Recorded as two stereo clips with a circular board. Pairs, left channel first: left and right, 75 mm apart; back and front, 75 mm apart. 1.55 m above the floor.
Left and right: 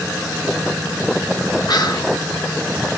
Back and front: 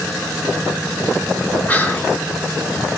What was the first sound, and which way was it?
Whispering, 110° left.